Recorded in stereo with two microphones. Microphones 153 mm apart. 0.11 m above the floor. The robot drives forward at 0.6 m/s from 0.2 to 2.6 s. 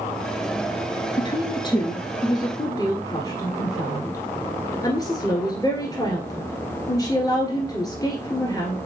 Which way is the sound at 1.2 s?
30° left (ahead or behind).